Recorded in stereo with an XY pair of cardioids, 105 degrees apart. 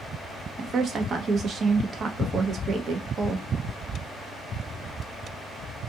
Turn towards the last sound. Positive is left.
turn(degrees=-50)